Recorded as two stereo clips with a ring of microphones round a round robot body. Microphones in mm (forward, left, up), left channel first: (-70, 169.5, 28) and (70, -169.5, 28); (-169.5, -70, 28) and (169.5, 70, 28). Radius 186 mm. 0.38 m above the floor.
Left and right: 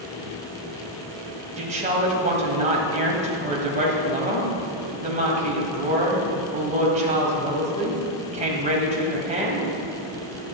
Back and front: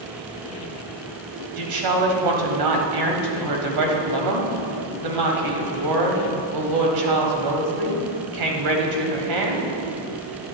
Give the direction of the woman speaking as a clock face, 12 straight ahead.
12 o'clock.